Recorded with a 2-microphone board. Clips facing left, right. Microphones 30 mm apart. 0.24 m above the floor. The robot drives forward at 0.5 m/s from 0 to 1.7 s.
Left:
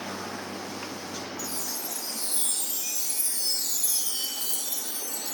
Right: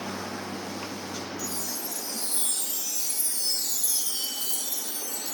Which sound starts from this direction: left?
A chime, at 1.4 s.